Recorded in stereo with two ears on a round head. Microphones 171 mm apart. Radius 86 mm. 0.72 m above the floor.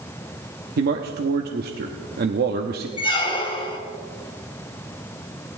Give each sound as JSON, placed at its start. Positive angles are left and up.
{"t": 0.8, "sound": "a man speaking", "side_deg": -50, "distance_m": 0.8}
{"t": 3.0, "sound": "a squeak", "side_deg": 25, "distance_m": 1.2}